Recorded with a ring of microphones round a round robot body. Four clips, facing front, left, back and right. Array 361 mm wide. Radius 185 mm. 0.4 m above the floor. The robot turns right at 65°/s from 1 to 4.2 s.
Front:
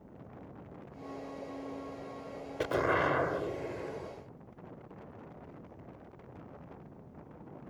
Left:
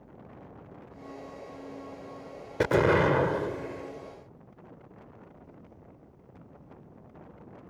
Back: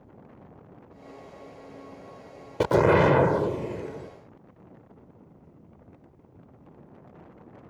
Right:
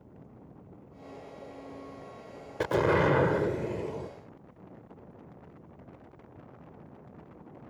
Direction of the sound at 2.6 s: 150° left.